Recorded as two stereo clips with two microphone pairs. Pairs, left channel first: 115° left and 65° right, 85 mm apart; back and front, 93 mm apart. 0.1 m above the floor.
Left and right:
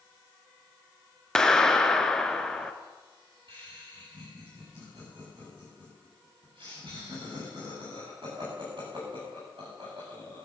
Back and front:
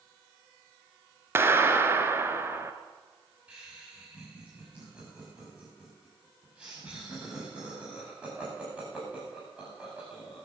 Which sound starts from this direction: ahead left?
A clap, at 1.4 s.